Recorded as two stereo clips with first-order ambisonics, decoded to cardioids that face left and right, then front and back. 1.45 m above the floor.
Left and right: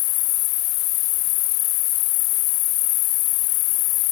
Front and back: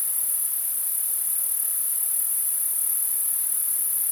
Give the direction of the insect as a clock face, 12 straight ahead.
9 o'clock.